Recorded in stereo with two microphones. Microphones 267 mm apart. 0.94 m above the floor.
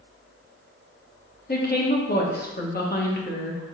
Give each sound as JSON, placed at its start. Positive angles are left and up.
{"t": 1.5, "sound": "a woman speaking", "side_deg": 35, "distance_m": 0.8}